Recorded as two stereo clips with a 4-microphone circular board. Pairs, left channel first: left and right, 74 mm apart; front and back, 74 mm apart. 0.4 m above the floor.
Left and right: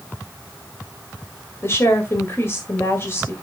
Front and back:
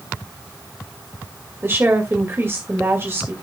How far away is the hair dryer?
No hair dryer in this recording.